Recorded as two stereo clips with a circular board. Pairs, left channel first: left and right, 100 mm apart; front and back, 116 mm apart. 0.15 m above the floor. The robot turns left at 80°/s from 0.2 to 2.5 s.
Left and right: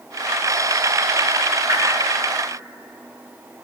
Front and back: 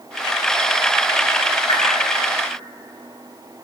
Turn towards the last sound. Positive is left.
turn(degrees=-105)